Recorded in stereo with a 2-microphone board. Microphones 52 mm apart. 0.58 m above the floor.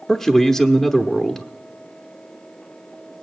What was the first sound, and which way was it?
A man speaking, centre (ahead or behind).